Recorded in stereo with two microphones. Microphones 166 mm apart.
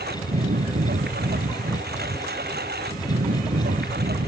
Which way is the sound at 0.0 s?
80° right.